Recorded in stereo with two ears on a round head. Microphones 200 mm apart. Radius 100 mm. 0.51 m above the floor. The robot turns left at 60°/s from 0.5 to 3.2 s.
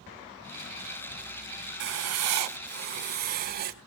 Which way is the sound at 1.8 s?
55° right.